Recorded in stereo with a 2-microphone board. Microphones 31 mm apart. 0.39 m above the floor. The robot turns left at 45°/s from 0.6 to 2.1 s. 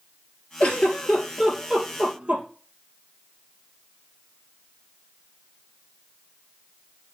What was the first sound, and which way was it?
A giggle, 40° left (ahead or behind).